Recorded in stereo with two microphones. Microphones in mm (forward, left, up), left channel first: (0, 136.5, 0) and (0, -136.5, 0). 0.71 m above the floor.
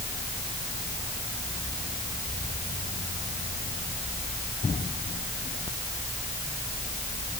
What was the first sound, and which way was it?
Only background noise.